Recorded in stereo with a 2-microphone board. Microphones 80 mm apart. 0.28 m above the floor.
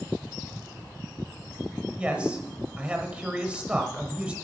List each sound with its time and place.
2.0 s a man speaking: 15° right (ahead or behind), 0.9 m